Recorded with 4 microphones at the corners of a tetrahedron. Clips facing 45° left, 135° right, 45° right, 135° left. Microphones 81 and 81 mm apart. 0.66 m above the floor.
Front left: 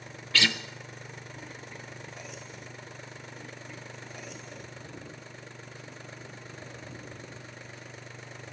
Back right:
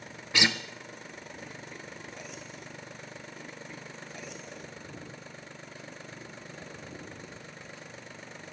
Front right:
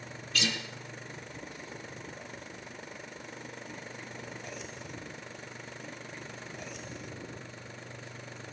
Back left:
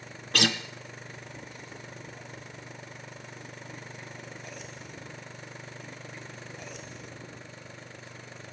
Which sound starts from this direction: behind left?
A guitar, at 0.3 s.